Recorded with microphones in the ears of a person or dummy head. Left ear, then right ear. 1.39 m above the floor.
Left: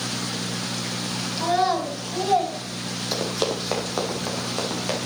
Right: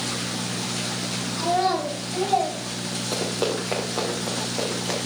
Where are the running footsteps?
30° left (ahead or behind), 3 m; by 5.0 s 35° left (ahead or behind), 5 m.